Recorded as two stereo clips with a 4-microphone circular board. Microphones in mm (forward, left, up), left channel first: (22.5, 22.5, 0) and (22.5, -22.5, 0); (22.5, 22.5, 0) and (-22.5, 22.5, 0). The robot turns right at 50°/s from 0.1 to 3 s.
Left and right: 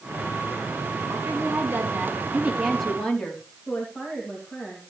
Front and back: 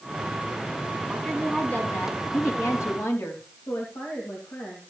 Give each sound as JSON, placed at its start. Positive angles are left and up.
{"t": 1.1, "sound": "a woman speaking", "azimuth_deg": -80, "distance_m": 3.5}
{"t": 3.7, "sound": "a woman speaking", "azimuth_deg": 15, "distance_m": 2.5}